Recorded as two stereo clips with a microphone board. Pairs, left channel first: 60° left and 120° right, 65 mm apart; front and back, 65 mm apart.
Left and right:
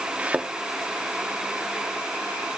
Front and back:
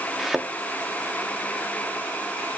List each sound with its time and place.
0.2 s a thud: 105° right, 0.8 m